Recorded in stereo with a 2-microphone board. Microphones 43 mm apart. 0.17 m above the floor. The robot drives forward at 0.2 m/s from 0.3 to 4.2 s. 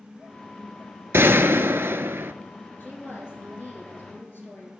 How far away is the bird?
No bird in this recording.